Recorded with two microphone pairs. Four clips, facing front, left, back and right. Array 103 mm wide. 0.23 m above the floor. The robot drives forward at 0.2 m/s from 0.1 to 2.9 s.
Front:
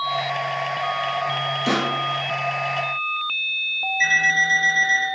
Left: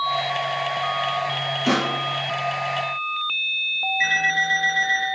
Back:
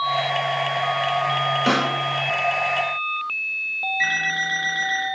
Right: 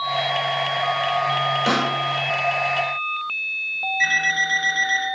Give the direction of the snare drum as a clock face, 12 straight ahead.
5 o'clock.